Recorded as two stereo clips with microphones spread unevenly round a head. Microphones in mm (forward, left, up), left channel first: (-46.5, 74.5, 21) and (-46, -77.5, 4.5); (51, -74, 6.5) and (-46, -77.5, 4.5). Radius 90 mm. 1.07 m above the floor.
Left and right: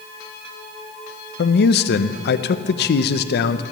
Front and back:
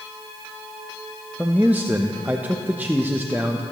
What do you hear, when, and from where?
1.4 s a man speaking: 100° left, 0.6 m